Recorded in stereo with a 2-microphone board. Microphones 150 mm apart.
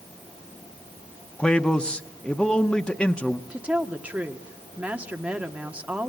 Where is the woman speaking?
10° right (ahead or behind), 1.4 m.